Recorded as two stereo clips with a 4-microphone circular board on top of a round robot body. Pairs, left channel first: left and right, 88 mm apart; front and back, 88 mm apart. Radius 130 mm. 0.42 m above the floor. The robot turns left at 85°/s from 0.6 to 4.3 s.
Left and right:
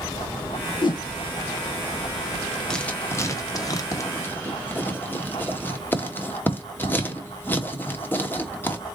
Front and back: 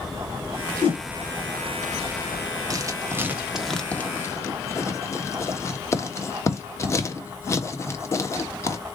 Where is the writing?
170° left, 1.2 m; by 8.8 s 35° left, 1.2 m.